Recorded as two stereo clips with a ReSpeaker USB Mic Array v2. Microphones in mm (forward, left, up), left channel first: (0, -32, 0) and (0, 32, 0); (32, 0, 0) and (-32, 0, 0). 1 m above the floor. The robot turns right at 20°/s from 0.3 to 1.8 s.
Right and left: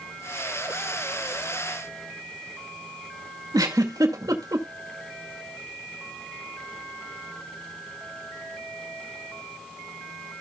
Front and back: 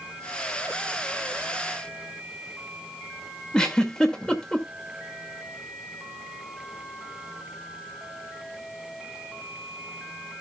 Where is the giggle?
80° left, 2 m.